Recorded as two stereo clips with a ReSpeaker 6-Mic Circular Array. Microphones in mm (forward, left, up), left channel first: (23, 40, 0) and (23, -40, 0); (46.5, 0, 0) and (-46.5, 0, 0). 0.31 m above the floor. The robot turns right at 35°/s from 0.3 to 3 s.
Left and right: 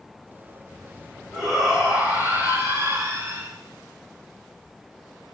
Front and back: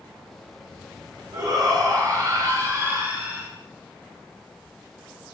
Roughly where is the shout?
Behind.